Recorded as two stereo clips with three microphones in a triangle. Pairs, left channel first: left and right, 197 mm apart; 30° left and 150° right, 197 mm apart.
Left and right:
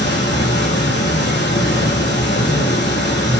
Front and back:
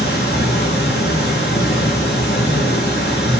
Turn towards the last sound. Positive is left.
turn(degrees=60)